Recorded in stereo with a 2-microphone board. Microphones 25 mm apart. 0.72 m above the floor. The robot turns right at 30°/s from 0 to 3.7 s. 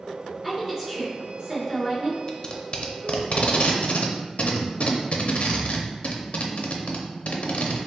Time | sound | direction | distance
0.4 | a woman speaking | 170° right | 1.7 m
2.3 | tape being pulled | 25° left (ahead or behind) | 0.5 m